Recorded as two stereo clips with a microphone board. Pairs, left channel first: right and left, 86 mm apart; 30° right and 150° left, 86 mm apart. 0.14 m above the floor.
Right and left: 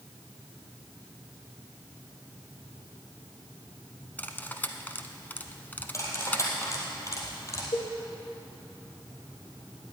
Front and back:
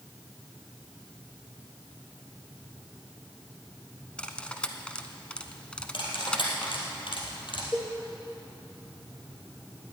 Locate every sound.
4.2 s cutlery clinking: 85° right, 0.8 m
5.9 s cutlery clinking: 35° right, 3 m
7.7 s a cowbell: 105° right, 2 m